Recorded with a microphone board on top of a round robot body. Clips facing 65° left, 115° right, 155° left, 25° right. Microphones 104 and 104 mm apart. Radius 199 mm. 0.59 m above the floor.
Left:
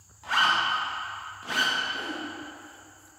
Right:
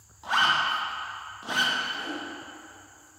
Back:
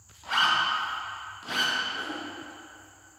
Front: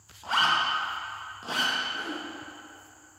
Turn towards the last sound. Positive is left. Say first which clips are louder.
# even, even
turn(degrees=80)